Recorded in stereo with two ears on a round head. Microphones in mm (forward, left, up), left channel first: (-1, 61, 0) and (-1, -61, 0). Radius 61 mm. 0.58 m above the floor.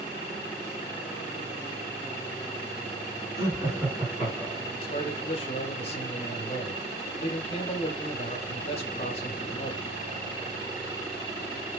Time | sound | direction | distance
3.4 | laughter | 25° right (ahead or behind) | 5.5 m
4.8 | a man speaking | 45° left (ahead or behind) | 1.4 m